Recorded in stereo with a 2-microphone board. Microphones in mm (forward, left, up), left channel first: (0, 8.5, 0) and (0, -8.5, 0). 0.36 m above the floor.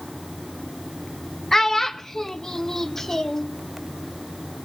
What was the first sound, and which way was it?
A child speaking, 20° left (ahead or behind).